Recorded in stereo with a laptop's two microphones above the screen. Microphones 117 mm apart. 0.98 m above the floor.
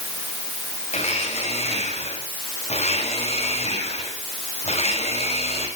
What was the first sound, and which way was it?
A blender, 65° left (ahead or behind).